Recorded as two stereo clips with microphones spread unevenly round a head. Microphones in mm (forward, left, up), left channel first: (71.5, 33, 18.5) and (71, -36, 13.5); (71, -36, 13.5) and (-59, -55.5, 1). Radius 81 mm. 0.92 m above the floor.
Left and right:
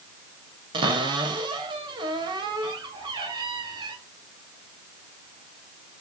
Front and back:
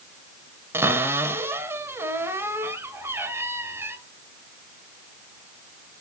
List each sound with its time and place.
0.7 s a cupboard door: 100° right, 2 m